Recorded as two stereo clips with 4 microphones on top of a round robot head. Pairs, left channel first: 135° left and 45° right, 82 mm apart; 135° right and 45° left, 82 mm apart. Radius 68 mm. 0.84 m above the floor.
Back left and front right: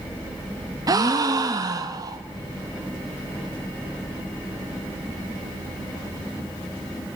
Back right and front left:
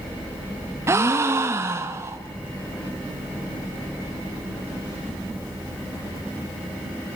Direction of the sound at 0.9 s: 10° right.